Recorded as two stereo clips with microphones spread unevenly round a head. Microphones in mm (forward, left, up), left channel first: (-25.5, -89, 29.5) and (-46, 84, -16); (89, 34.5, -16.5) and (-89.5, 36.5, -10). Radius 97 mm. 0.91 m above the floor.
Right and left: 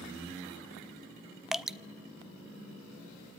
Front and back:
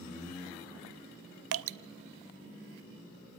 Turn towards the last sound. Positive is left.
turn(degrees=-175)